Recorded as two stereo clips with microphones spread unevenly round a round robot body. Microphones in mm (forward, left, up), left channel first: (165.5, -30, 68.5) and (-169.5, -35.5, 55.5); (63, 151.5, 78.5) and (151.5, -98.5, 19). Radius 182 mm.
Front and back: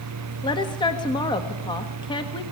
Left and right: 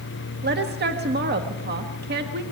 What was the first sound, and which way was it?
A woman speaking, 75° right.